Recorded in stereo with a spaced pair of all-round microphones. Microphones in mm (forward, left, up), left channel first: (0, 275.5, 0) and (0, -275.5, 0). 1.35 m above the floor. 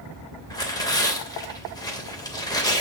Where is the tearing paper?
5° left (ahead or behind), 2.5 m.